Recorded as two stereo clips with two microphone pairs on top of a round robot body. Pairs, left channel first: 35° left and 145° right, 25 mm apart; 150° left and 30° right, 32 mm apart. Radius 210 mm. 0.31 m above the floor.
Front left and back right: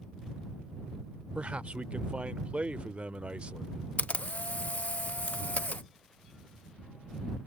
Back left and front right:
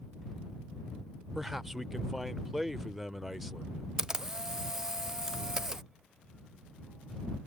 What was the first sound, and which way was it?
A man speaking, 115° right.